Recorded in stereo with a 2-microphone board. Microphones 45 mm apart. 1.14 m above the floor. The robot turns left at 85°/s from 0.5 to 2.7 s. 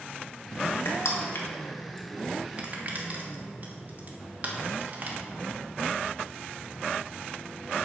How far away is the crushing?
About 1.2 m.